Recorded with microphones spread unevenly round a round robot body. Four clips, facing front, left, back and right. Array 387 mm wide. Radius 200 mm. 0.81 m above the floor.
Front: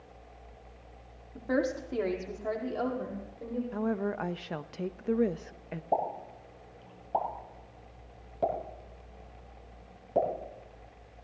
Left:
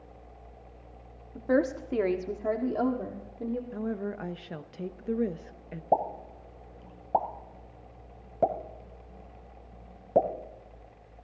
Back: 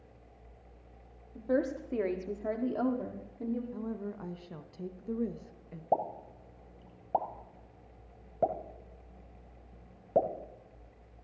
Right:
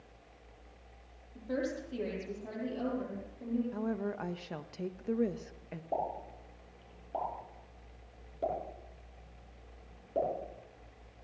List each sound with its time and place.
1.4 s a woman speaking: 65° left, 1.8 m; by 3.6 s 125° left, 2 m
3.7 s a woman speaking: 25° left, 0.7 m
5.9 s a pop: 100° left, 1.8 m